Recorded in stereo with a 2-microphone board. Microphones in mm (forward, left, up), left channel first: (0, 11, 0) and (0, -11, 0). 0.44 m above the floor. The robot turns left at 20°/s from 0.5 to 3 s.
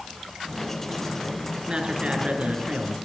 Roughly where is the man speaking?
Right.